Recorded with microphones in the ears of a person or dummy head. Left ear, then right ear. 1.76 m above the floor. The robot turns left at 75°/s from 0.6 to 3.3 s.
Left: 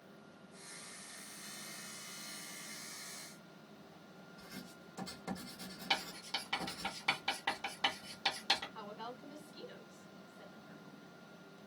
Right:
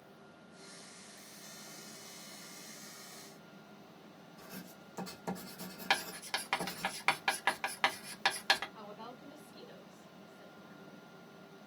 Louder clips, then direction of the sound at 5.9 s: Right 3 dB; 60° right (ahead or behind).